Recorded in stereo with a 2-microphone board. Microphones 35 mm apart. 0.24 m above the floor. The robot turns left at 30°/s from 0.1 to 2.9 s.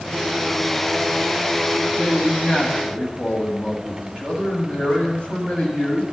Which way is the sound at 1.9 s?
30° left (ahead or behind).